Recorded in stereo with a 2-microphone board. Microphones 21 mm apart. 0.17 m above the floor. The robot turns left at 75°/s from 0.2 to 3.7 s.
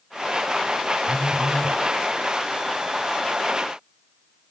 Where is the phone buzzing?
25° left, 2 m; by 1.7 s 25° right, 2 m.